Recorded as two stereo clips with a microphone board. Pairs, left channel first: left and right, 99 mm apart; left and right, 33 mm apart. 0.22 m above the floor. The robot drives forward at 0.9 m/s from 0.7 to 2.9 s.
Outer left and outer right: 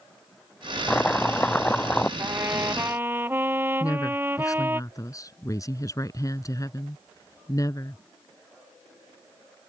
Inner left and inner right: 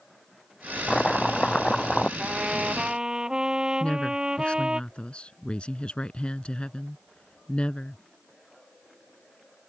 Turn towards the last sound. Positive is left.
turn(degrees=35)  # may be behind; listen again after turning